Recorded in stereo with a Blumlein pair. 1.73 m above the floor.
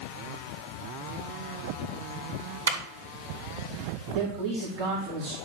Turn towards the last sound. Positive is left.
turn(degrees=-40)